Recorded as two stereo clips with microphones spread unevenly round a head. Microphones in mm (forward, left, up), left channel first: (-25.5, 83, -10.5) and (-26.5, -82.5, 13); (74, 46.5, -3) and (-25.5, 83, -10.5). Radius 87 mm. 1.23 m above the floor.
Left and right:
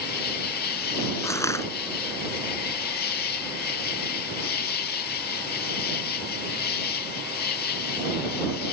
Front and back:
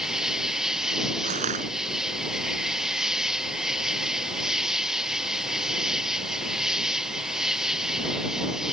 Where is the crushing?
165° left.